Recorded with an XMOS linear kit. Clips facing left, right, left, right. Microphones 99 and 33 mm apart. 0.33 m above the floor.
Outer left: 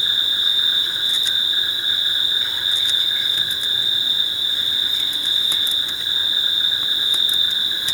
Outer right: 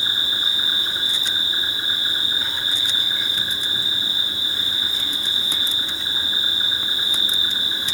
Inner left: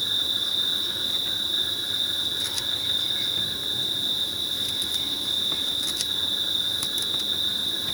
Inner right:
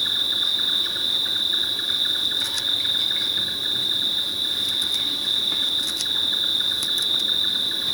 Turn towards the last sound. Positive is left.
turn(degrees=-40)  # may be behind; listen again after turning